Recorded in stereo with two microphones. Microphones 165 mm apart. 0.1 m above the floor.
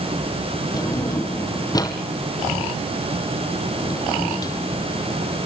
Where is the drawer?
25° left (ahead or behind), 2.5 m.